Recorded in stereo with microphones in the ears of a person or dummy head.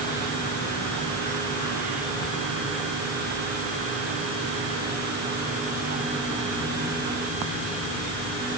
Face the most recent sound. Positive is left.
No sound to turn to.